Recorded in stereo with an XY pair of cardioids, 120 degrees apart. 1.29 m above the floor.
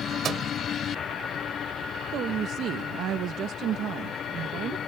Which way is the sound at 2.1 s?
65° right.